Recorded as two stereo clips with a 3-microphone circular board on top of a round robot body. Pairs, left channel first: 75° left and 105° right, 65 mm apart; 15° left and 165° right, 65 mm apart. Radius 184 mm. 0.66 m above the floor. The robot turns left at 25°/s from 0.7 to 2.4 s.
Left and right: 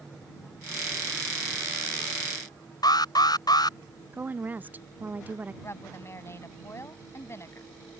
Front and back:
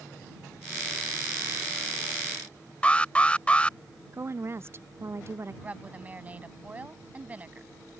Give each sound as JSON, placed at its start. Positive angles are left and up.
{"t": 2.8, "sound": "an alarm", "azimuth_deg": 85}
{"t": 4.1, "sound": "a woman speaking", "azimuth_deg": -150}
{"t": 5.6, "sound": "a woman speaking", "azimuth_deg": 125}